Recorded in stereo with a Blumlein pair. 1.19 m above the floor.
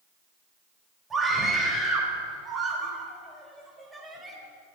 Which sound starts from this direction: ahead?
A scream, at 1.1 s.